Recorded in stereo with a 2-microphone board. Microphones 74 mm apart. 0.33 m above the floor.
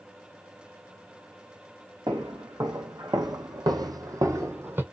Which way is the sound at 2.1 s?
65° right (ahead or behind).